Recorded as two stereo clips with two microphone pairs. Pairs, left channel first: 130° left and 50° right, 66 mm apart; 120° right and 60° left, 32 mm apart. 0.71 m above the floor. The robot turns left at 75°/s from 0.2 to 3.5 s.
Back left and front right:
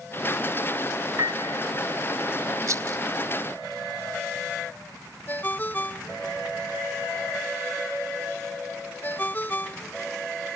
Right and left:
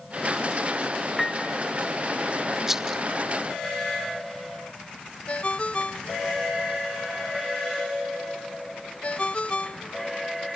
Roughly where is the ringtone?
Behind.